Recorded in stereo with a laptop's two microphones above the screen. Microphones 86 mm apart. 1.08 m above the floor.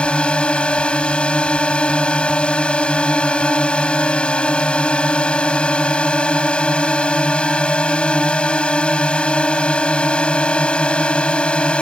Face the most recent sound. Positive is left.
turn(degrees=10)  # may be behind; listen again after turning